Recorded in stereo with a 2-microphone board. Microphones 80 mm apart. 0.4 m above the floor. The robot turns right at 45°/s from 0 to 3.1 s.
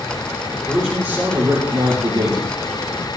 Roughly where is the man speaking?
Behind.